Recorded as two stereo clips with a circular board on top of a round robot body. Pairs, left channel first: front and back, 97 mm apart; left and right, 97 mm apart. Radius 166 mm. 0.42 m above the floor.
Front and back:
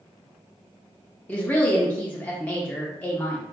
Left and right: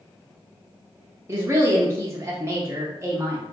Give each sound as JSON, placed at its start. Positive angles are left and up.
{"t": 1.3, "sound": "a woman speaking", "azimuth_deg": -60, "distance_m": 0.8}